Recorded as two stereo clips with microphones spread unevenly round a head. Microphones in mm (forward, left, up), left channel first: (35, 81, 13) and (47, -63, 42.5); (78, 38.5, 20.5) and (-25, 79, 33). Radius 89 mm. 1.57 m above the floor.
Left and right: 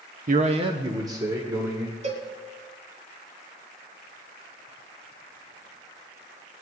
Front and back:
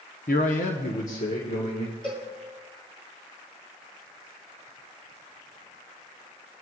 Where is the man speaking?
65° right, 0.7 m; by 1.9 s 10° right, 2.5 m.